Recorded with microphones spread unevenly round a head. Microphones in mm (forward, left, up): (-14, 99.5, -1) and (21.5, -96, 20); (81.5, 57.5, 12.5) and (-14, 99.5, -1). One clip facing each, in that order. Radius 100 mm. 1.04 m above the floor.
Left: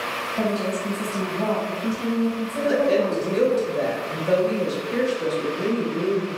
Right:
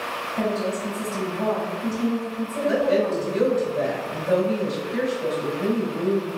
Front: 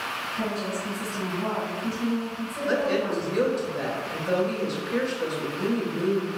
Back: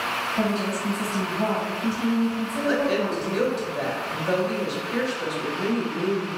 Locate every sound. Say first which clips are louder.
0.4 s a woman speaking: even, back 4 dB; 170° right, 1.5 m
2.7 s a woman speaking: left 1 dB, back 1 dB; 70° left, 1.6 m